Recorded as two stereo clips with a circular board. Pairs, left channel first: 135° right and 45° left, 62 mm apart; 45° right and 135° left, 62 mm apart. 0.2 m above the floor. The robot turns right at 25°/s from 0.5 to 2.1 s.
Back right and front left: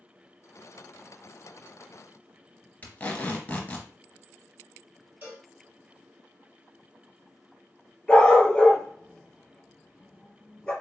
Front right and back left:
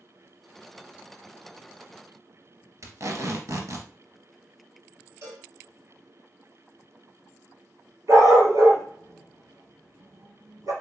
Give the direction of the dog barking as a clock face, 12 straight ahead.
7 o'clock.